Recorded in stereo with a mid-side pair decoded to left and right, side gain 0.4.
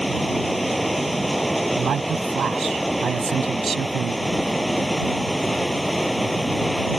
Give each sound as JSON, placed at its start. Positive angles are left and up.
{"t": 0.0, "sound": "running water", "azimuth_deg": -10}
{"t": 1.8, "sound": "a man speaking", "azimuth_deg": -60}